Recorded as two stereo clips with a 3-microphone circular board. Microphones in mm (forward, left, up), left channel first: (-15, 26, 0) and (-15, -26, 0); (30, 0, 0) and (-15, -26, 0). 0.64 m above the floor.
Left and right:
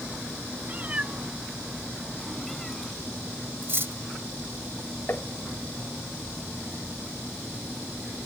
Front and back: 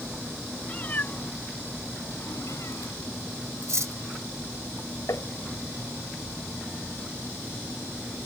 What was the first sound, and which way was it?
A cat meowing, 30° right.